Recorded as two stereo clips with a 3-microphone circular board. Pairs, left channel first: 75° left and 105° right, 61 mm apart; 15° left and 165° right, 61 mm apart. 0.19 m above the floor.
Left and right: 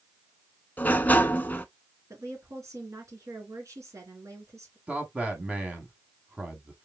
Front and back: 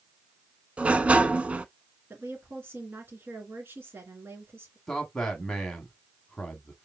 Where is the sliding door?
130° left, 0.6 m.